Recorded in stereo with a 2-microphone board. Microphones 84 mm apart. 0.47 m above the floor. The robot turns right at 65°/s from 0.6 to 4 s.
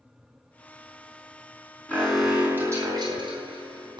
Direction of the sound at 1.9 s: 160° left.